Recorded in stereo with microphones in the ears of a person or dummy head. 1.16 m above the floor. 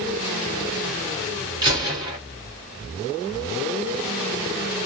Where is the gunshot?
25° right (ahead or behind), 1.9 m.